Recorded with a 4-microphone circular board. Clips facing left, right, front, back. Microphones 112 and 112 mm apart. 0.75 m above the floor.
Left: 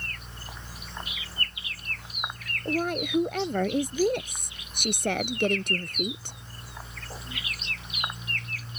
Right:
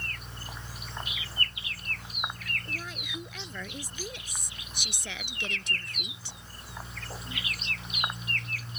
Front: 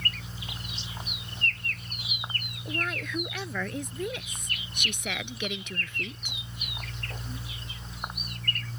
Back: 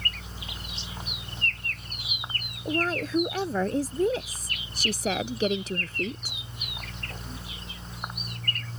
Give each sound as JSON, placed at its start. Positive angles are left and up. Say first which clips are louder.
{"t": 2.6, "sound": "a woman speaking", "louder": "left 14 dB, back 7 dB", "azimuth_deg": 125}